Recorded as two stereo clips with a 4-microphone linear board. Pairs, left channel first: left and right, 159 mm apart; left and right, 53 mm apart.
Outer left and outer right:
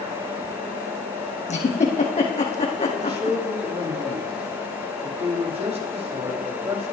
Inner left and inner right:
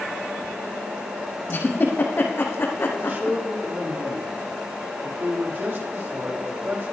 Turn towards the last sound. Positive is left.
turn(degrees=-40)  # may be behind; listen again after turning